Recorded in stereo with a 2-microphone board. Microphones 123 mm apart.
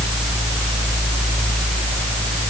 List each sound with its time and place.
Only background noise.